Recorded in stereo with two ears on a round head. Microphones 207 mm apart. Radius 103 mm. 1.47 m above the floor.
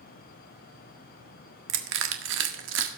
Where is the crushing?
60° right (ahead or behind), 1.5 m.